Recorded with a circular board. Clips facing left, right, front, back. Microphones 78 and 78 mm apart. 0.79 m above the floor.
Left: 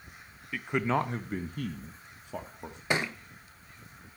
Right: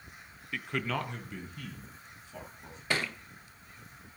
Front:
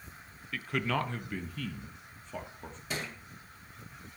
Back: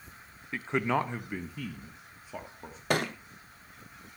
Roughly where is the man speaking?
Behind.